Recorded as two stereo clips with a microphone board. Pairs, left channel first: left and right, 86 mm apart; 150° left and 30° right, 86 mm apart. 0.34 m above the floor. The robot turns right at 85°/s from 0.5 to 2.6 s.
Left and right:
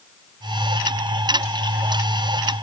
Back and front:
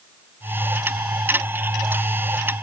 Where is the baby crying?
I don't hear a baby crying.